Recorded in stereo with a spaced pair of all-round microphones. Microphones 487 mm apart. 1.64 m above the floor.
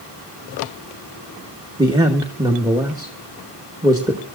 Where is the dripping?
No dripping in this recording.